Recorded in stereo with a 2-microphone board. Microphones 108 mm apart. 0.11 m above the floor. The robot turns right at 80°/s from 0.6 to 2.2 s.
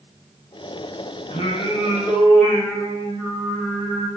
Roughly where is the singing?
Left.